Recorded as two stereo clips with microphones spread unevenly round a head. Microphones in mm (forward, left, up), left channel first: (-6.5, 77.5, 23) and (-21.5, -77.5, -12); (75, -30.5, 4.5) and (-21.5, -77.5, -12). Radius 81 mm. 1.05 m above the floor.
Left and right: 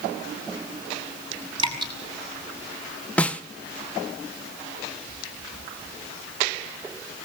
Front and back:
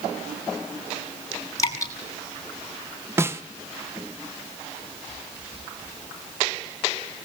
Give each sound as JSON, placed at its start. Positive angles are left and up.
{"t": 1.6, "sound": "dripping", "azimuth_deg": -30, "distance_m": 5.5}
{"t": 3.2, "sound": "a snare drum", "azimuth_deg": 180, "distance_m": 0.9}